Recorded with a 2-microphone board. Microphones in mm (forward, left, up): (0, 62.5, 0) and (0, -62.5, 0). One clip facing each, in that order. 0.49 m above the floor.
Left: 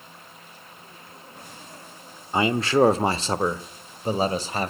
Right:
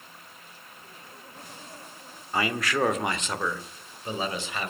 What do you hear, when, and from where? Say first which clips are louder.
2.3 s a man speaking: left 7 dB; 25° left (ahead or behind), 0.9 m; by 4.7 s 40° left (ahead or behind), 2.0 m